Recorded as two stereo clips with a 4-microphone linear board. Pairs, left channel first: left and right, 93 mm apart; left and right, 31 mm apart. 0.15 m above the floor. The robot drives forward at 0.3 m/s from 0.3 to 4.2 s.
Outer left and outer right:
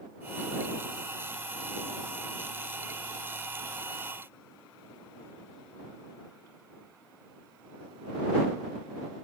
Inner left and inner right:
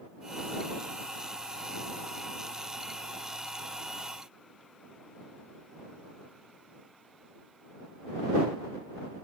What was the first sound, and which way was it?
Only background noise.